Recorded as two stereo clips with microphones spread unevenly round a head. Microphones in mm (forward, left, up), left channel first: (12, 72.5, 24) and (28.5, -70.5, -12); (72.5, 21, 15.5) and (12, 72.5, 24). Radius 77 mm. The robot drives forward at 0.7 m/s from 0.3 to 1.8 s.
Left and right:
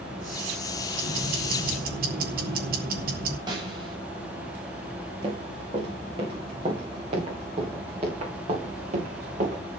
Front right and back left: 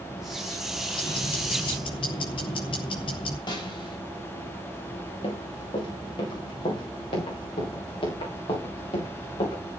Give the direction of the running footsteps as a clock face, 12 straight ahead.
1 o'clock.